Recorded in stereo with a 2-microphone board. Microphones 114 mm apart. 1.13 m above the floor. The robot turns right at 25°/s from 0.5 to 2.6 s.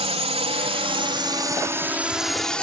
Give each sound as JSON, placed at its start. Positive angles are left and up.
{"t": 0.0, "sound": "a drone", "side_deg": -65}